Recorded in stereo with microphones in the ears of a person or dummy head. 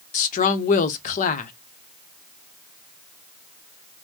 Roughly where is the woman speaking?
Left.